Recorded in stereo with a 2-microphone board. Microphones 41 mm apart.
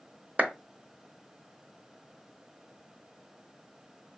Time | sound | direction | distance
0.4 | a clap | 35° right (ahead or behind) | 0.9 m